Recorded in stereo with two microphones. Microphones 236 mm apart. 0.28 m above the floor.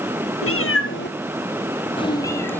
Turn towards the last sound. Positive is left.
turn(degrees=5)  # may be behind; listen again after turning